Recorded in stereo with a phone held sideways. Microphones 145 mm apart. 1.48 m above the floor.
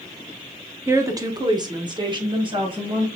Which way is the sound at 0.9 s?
20° right (ahead or behind).